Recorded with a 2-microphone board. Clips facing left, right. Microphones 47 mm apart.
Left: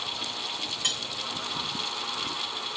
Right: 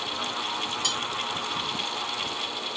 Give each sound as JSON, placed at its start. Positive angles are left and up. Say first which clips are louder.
{"t": 0.8, "sound": "cutlery clinking", "louder": "left 1 dB", "side_deg": 30, "distance_m": 1.6}